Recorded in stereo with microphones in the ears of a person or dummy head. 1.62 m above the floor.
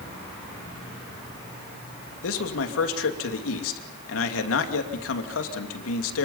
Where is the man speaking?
85° left, 2.5 m.